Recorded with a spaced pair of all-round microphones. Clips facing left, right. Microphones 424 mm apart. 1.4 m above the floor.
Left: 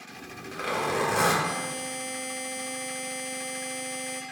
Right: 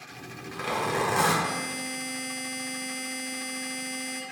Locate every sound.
0.1 s a zipper: 10° right (ahead or behind), 2 m
1.4 s a buzzer: 30° right (ahead or behind), 1.2 m